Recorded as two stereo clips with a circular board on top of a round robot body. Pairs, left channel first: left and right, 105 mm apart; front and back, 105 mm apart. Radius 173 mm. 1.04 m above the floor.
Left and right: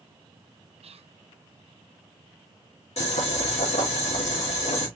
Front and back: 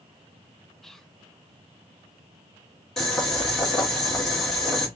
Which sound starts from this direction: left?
Boiling, at 3.0 s.